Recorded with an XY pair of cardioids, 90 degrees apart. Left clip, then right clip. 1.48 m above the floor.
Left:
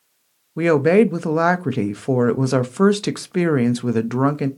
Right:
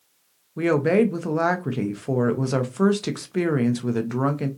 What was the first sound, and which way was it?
A woman speaking, 45° left.